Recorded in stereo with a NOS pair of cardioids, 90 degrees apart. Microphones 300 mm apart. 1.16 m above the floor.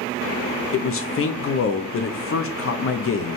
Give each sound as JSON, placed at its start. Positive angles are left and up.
{"t": 0.7, "sound": "a man speaking", "azimuth_deg": 50, "distance_m": 1.2}